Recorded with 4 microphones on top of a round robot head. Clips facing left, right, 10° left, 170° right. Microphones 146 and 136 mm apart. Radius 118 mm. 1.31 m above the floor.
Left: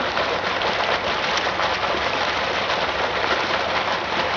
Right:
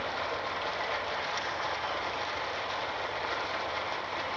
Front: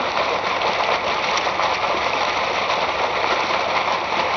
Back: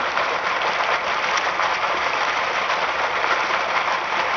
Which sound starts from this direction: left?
Running water, at 0.0 s.